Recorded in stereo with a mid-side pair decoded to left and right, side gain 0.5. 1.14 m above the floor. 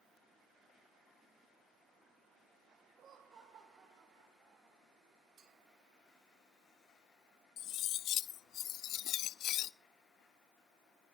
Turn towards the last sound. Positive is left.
turn(degrees=65)